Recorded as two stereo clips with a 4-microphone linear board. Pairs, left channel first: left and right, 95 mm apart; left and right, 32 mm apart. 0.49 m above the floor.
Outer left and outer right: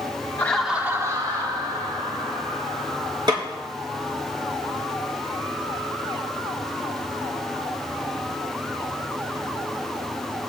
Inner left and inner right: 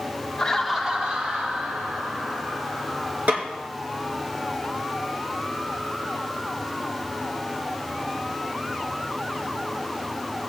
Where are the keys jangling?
No keys jangling in this recording.